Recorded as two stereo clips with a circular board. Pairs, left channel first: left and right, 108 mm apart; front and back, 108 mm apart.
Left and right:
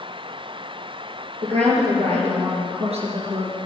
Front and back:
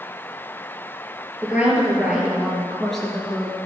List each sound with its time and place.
1.4 s a woman speaking: 100° right, 5 m; by 3.6 s 75° right, 3.5 m